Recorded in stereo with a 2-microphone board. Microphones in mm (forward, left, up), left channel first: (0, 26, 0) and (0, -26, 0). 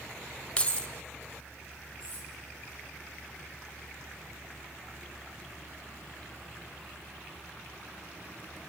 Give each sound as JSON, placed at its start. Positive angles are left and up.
{"t": 0.6, "sound": "keys jangling", "side_deg": 20, "distance_m": 1.2}
{"t": 2.0, "sound": "cutlery clinking", "side_deg": -40, "distance_m": 7.5}